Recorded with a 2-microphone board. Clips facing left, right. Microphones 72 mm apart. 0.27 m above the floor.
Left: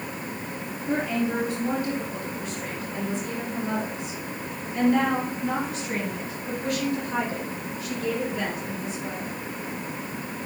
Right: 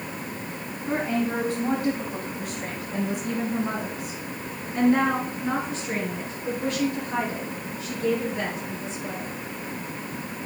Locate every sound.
0.9 s a woman speaking: 40° right (ahead or behind), 2 m; by 9.4 s 25° right (ahead or behind), 6 m